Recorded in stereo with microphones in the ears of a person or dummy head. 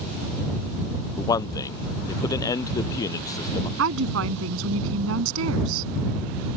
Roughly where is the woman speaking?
Right.